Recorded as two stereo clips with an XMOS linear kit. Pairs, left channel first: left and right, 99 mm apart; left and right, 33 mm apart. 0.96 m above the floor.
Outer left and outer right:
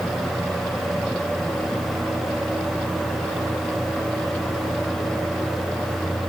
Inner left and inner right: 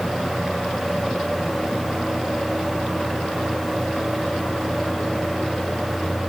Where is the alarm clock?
No alarm clock in this recording.